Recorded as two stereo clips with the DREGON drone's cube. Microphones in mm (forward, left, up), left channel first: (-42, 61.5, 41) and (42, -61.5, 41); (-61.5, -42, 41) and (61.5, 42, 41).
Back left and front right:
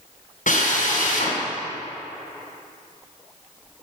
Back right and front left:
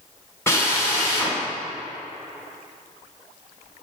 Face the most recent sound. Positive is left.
turn(degrees=145)